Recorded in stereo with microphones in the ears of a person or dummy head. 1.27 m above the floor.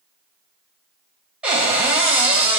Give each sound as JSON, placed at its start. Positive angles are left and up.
{"t": 1.4, "sound": "a cupboard door", "side_deg": -5, "distance_m": 0.8}